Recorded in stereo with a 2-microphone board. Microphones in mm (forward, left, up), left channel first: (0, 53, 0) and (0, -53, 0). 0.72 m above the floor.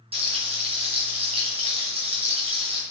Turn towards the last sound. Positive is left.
turn(degrees=-65)  # may be behind; listen again after turning